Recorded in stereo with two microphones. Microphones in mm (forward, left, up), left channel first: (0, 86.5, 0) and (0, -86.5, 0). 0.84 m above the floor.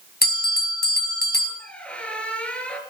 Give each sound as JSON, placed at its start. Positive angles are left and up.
{"t": 0.2, "sound": "a bell", "side_deg": 65, "distance_m": 3.0}
{"t": 1.6, "sound": "a squeak", "side_deg": 5, "distance_m": 3.0}